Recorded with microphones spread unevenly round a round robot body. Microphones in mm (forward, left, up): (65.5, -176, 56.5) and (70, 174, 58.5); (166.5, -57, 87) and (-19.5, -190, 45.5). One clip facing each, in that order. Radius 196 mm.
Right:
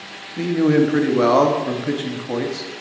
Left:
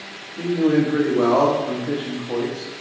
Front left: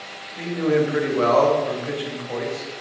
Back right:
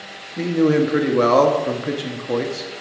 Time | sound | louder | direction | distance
0.4 | a man speaking | right 2 dB, back right 4 dB | 130° right | 1.6 m